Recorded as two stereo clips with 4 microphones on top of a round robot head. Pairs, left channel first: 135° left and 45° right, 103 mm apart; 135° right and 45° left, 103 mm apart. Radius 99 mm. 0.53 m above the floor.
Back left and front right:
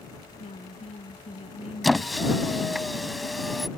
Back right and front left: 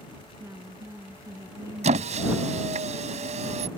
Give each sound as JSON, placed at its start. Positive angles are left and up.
{"t": 0.4, "sound": "a woman speaking", "azimuth_deg": 115}
{"t": 1.8, "sound": "a squeak", "azimuth_deg": 45}